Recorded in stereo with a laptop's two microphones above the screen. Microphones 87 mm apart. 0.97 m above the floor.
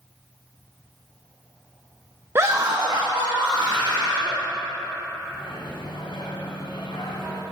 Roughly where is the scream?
Right.